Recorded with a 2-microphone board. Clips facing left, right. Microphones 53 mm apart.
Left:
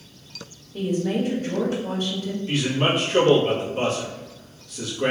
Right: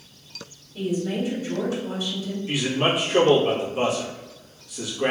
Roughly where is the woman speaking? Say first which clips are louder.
Left 2 dB; left.